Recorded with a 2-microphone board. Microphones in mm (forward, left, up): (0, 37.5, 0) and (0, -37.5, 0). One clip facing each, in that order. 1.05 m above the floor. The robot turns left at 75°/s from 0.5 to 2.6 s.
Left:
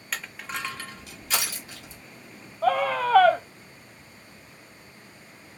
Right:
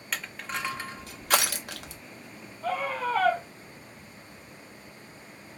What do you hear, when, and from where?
0.1 s crushing: centre (ahead or behind), 0.7 m; by 2.0 s 65° right (ahead or behind), 0.7 m
2.6 s a scream: 75° left (ahead or behind), 0.7 m